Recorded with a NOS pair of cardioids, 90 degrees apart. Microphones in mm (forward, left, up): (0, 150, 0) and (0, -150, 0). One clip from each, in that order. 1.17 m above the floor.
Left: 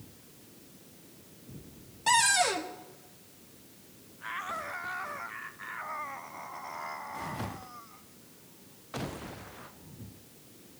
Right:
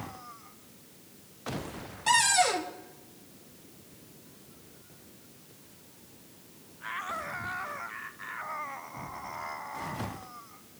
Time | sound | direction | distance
2.1 | a cupboard door | 10° left | 1.2 m